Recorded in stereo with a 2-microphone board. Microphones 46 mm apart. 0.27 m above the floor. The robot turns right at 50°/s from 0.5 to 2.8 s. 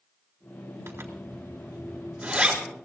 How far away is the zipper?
About 4 m.